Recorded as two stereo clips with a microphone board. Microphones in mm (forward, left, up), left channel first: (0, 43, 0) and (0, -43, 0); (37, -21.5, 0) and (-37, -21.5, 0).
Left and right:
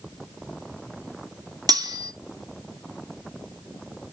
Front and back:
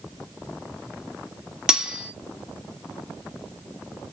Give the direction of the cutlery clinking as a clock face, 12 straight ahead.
3 o'clock.